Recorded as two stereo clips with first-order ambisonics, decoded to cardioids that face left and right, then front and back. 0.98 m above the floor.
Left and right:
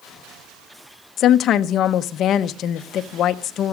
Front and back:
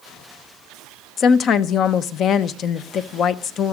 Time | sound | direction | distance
1.2 | a woman speaking | 50° left | 0.7 m